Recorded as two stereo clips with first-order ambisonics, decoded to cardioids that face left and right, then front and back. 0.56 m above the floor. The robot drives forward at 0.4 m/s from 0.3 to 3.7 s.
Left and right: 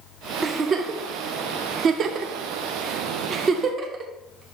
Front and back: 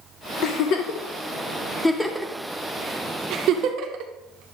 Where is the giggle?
25° right, 0.9 m; by 4.5 s 155° right, 0.9 m.